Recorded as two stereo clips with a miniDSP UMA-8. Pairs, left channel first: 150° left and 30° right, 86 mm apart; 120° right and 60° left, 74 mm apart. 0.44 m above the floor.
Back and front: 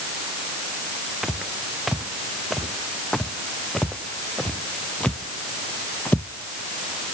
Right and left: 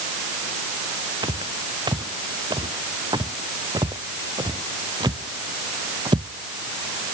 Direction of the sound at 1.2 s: 55° left.